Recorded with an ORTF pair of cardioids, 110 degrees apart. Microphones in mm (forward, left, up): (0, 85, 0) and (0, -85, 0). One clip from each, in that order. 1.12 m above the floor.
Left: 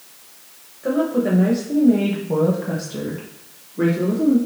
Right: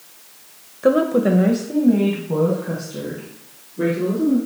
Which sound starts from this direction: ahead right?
A woman speaking, at 0.8 s.